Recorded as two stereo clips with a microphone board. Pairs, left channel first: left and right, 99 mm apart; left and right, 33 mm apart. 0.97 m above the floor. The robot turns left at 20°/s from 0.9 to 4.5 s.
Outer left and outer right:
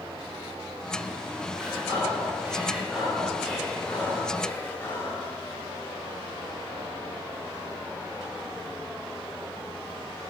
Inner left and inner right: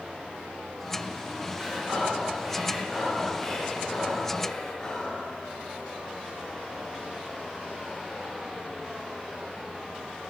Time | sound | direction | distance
1.5 | breathing | 145° right | 3 m